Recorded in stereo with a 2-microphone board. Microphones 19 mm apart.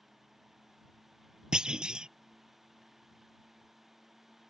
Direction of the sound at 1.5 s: 70° right (ahead or behind).